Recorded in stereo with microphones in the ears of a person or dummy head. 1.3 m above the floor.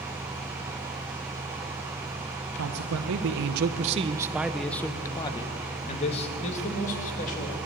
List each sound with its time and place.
2.6 s a man speaking: 85° right, 1.0 m; by 7.6 s 40° left (ahead or behind), 2 m